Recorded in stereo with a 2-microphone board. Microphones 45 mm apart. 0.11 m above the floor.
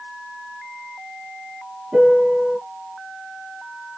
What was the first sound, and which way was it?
A piano, 25° right (ahead or behind).